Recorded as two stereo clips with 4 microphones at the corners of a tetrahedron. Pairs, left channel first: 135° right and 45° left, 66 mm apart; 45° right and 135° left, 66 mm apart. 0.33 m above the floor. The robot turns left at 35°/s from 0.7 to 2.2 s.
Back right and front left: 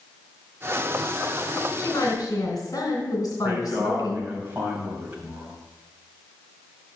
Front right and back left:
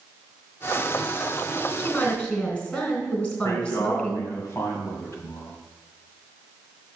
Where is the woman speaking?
95° right, 3 m; by 4.3 s 110° right, 3 m.